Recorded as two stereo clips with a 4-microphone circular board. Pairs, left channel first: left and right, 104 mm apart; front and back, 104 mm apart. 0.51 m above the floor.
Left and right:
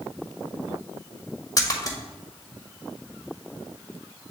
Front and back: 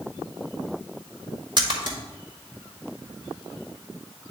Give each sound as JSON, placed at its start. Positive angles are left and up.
{"t": 1.6, "sound": "a splash", "azimuth_deg": 145, "distance_m": 1.5}